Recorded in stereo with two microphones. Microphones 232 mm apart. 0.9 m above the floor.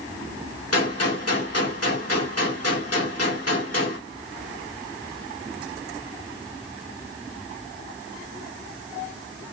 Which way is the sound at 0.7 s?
75° left (ahead or behind).